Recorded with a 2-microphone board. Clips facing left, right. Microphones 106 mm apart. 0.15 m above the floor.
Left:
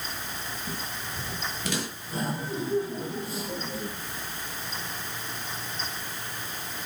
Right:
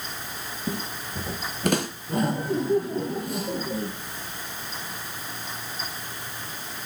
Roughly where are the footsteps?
Right.